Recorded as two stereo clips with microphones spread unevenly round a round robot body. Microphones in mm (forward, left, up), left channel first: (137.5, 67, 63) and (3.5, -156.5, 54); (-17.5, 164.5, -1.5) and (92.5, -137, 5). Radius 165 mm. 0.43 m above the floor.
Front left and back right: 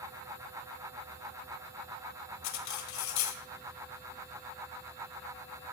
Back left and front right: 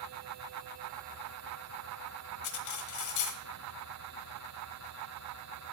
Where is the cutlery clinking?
80° left, 1.3 m.